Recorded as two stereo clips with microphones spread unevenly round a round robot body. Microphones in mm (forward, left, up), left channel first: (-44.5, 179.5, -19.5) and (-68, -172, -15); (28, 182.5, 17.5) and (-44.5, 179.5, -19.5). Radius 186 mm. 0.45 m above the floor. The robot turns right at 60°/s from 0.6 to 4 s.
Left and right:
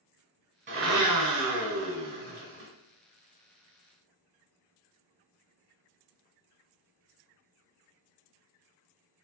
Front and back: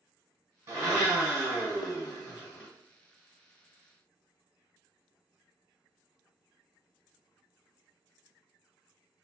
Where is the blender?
150° right, 1.6 m; by 2.7 s 25° right, 1.6 m.